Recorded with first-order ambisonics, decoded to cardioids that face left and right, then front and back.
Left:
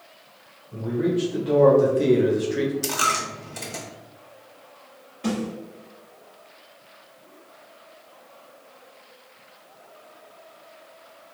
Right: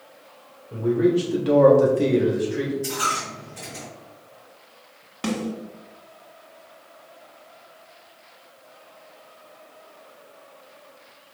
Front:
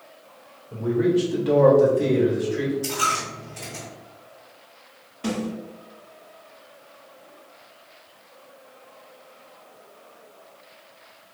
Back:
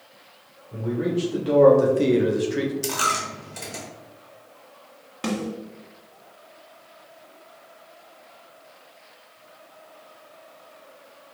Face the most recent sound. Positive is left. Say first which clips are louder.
# right 1 dB, even
turn(degrees=-130)